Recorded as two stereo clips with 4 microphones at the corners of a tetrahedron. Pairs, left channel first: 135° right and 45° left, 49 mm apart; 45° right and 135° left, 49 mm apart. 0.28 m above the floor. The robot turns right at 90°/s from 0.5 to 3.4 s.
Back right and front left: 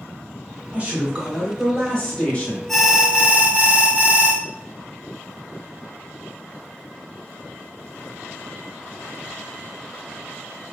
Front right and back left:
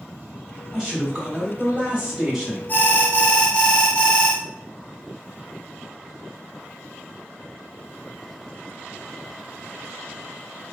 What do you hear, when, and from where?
0.7 s a man speaking: 60° left, 1.4 m; by 2.6 s 135° right, 1.4 m
2.7 s an alarm: 50° right, 0.7 m; by 4.4 s 10° left, 0.7 m